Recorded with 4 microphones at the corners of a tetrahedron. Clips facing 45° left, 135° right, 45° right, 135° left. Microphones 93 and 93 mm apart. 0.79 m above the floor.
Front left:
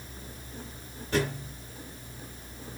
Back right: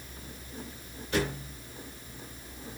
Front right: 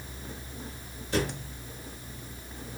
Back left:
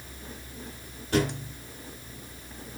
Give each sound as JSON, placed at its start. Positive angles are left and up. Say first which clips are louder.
{"t": 1.1, "sound": "a thud", "louder": "front left 2 dB, back left 4 dB", "azimuth_deg": 95, "distance_m": 8.5}